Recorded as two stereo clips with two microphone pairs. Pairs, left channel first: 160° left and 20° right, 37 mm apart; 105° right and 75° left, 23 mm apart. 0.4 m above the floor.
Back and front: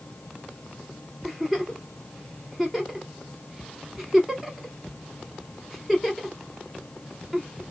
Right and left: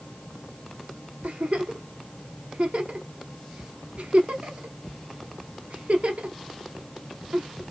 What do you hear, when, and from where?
1.2 s a giggle: 70° left, 1.1 m